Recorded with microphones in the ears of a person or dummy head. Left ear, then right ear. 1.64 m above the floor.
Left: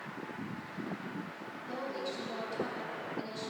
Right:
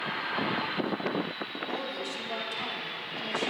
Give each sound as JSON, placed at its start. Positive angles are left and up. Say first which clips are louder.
{"t": 1.7, "sound": "a woman speaking", "louder": "even", "side_deg": -75, "distance_m": 3.5}